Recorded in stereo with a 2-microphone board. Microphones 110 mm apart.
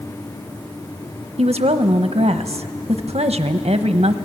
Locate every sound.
1.4 s a woman speaking: 70° right (ahead or behind), 1.1 m